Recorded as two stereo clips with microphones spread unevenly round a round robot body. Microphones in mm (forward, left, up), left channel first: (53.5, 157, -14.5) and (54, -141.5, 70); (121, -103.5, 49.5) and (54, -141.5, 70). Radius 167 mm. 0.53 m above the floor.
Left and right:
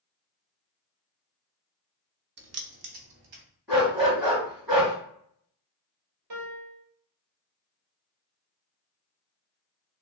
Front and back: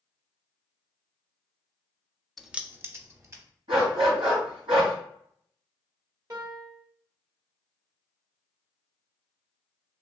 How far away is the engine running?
I don't hear an engine running.